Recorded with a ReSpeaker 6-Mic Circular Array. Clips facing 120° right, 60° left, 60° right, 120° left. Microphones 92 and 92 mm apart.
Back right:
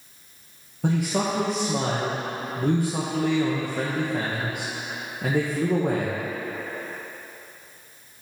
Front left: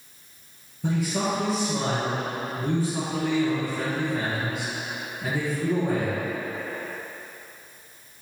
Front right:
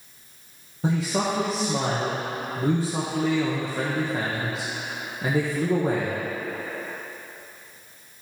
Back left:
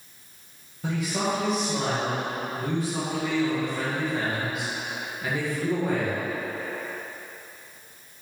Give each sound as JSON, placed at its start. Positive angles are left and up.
{"t": 0.8, "sound": "a man speaking", "azimuth_deg": -115, "distance_m": 1.0}